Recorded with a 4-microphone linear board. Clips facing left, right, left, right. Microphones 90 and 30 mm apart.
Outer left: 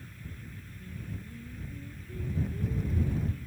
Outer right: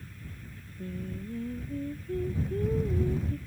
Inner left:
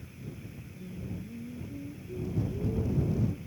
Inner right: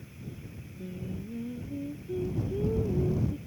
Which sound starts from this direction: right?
Singing, at 0.8 s.